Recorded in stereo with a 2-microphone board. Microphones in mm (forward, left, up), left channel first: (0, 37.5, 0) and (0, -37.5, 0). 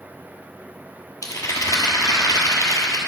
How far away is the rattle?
About 1.1 m.